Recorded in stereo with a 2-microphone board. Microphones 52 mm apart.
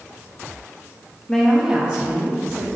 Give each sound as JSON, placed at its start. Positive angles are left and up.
{"t": 1.3, "sound": "a woman speaking", "side_deg": 15, "distance_m": 0.9}